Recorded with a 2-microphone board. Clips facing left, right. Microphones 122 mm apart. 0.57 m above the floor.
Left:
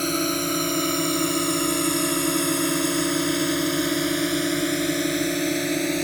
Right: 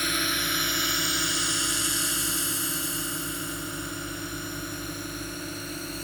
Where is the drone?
35° left (ahead or behind); by 6.0 s 75° left (ahead or behind).